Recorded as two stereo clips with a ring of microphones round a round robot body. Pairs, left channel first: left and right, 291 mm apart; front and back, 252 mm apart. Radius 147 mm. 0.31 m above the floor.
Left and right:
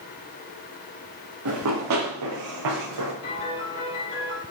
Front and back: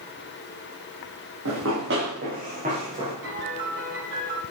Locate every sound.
1.4 s running footsteps: 135° right, 4 m; by 3.1 s 105° right, 5.5 m
3.2 s a piano: 145° left, 4.5 m